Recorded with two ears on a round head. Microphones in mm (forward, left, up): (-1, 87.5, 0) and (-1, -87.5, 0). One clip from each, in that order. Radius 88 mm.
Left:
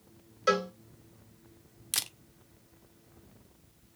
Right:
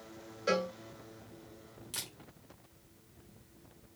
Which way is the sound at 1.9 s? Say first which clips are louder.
Left 8 dB; 50° left (ahead or behind).